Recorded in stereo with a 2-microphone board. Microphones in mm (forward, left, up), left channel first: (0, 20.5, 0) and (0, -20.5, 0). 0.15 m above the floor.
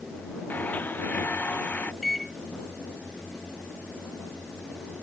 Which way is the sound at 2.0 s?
Centre (ahead or behind).